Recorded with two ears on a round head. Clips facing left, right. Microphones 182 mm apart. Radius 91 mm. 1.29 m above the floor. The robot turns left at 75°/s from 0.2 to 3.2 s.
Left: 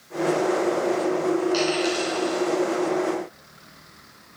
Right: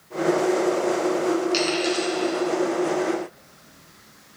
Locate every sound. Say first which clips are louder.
1.5 s a dropped coin: even; 35° right (ahead or behind), 2.5 m; by 2.4 s 25° left (ahead or behind), 2.5 m